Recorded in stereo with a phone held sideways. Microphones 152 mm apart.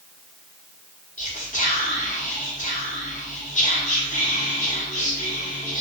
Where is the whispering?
55° left (ahead or behind), 0.9 m.